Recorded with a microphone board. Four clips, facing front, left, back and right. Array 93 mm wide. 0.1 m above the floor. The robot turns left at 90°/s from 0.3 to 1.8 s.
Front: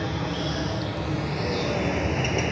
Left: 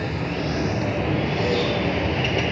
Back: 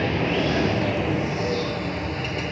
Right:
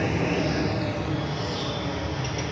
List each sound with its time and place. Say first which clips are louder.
0.0 s running water: right 2 dB, back 6 dB; 155° right, 0.9 m; by 2.5 s 70° left, 0.9 m